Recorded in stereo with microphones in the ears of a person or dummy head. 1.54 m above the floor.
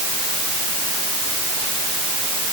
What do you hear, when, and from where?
Only background noise.